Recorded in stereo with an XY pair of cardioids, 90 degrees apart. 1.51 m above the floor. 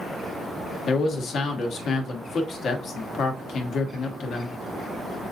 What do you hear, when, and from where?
0.9 s a man speaking: 70° left, 1.2 m